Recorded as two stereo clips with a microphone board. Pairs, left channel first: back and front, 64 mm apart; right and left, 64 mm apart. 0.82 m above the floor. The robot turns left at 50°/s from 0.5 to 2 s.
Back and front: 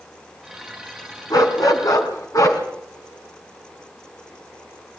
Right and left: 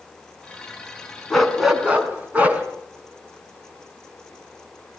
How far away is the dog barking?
About 3.5 m.